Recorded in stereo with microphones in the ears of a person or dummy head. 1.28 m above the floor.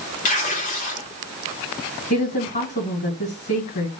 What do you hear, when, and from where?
0.2 s tearing paper: 40° left (ahead or behind), 1.2 m
2.1 s a woman speaking: 45° left (ahead or behind), 2 m